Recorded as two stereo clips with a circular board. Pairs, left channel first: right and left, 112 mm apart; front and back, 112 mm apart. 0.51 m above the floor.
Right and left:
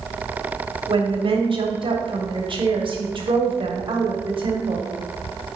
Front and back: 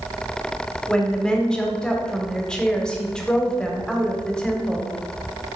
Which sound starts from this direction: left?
A woman speaking, at 0.9 s.